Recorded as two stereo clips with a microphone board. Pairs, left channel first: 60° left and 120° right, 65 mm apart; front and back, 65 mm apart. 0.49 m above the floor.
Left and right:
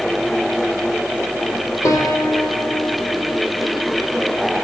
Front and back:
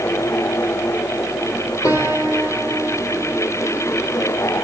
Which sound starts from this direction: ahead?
A piano, at 1.8 s.